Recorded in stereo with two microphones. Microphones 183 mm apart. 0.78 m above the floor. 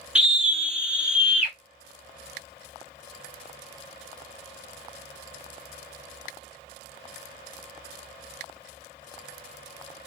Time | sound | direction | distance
0.1 | a scream | 5° right (ahead or behind) | 1.1 m